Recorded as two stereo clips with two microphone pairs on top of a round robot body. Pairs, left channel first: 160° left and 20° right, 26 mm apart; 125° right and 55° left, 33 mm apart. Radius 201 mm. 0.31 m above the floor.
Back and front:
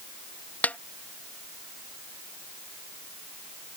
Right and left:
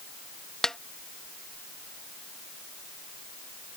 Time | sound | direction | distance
0.6 | a snare drum | 160° left | ?